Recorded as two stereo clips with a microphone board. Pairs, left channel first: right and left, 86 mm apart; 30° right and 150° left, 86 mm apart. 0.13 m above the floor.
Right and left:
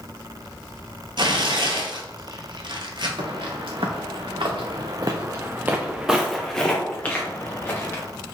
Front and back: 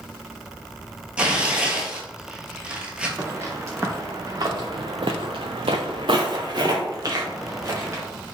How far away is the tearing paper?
About 0.7 m.